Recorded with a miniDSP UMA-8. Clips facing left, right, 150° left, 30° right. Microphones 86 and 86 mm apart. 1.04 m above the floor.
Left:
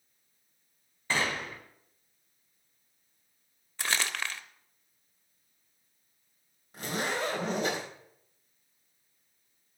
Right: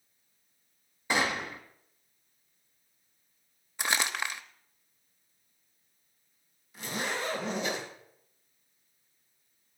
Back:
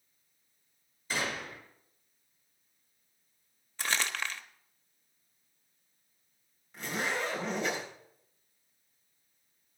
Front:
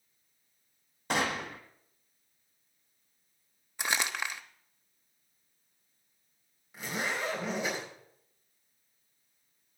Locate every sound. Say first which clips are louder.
1.1 s a gunshot: right 2 dB, front 4 dB; 15° right, 1.8 m
3.8 s crumpling: right 2 dB, front 1 dB; 65° right, 0.8 m
6.7 s a zipper: left 2 dB, back 1 dB; 50° left, 4.5 m